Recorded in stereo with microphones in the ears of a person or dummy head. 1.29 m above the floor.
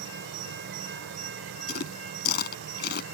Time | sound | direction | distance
0.0 | an insect | 75° right (ahead or behind) | ?
1.7 | chewing | 60° left (ahead or behind) | ?